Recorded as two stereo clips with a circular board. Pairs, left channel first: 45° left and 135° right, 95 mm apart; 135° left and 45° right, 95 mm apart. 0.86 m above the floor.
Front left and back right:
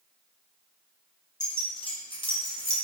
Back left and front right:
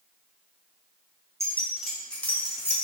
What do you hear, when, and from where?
1.4 s keys jangling: 10° left, 0.7 m; by 2.7 s 80° left, 1.1 m